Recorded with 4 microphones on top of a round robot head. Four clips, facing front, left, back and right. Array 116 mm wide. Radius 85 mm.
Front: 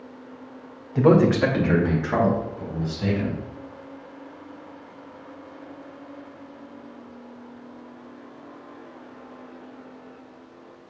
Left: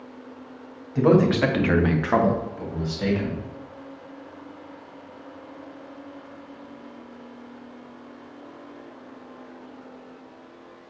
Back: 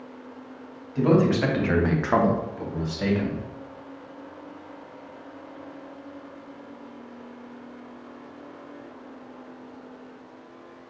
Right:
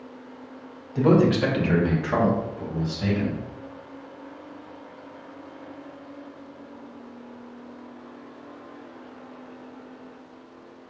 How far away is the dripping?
I don't hear dripping.